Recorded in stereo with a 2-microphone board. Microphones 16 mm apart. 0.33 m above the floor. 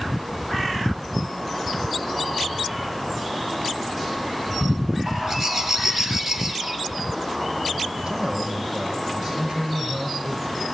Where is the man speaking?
70° right (ahead or behind), 6.5 m.